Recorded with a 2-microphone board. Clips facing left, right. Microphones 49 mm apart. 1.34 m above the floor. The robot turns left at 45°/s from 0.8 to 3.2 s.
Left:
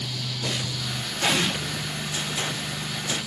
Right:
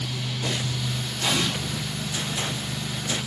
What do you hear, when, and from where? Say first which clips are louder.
1.2 s an explosion: left 2 dB; 60° left (ahead or behind), 2.5 m; by 1.5 s 75° left (ahead or behind), 2.5 m